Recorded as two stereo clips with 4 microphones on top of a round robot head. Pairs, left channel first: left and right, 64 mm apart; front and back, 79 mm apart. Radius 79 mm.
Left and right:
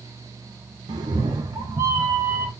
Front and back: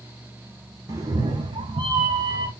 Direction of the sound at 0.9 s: 120° right.